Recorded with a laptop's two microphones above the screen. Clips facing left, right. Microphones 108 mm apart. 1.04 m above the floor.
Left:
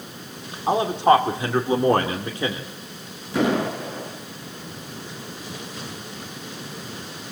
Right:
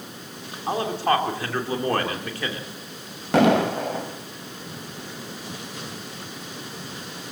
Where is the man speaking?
20° left (ahead or behind), 2.5 m.